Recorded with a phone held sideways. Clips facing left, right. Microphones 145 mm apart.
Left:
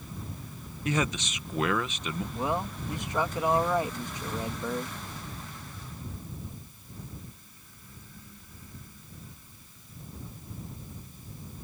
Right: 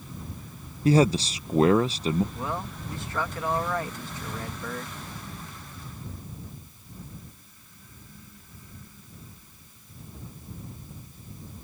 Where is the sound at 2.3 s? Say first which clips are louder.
Left 3 dB; 15° left (ahead or behind).